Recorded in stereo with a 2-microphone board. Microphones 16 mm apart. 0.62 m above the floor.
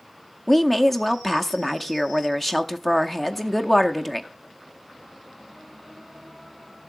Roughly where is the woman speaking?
Centre.